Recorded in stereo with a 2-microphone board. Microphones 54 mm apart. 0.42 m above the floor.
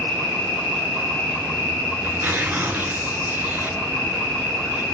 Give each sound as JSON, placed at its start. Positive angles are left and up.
{"t": 0.0, "sound": "an insect", "side_deg": -15, "distance_m": 2.0}
{"t": 2.0, "sound": "tearing paper", "side_deg": -35, "distance_m": 1.3}